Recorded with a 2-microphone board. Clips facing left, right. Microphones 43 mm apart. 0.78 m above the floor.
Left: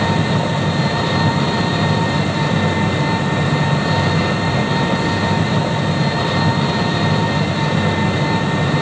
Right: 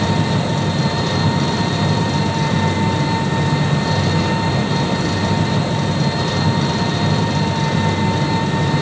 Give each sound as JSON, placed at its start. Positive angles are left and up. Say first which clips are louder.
{"t": 0.0, "sound": "an engine running", "louder": "left 1 dB", "side_deg": 20, "distance_m": 0.8}